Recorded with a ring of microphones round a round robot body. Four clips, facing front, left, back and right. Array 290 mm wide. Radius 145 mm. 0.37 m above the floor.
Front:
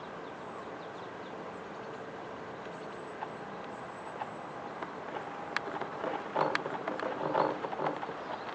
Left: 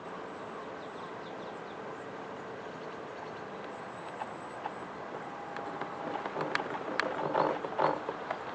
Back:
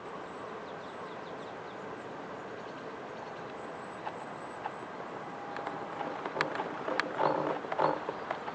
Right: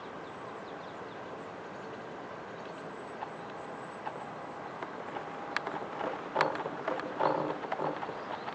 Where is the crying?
I don't hear crying.